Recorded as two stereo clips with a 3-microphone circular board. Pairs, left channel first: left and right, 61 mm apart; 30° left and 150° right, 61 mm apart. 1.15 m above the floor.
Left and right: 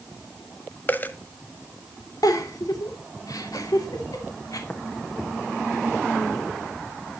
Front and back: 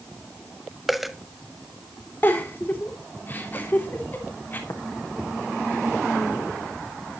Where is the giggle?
90° left, 2.5 m.